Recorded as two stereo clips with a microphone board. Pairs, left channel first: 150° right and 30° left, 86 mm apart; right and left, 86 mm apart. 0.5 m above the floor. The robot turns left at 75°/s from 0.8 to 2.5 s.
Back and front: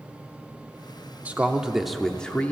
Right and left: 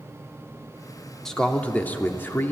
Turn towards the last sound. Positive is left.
turn(degrees=-105)